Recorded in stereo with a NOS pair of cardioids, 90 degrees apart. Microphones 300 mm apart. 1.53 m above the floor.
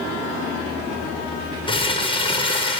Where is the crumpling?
15° left, 0.9 m.